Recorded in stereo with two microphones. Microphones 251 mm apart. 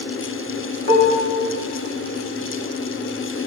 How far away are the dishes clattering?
About 1.7 m.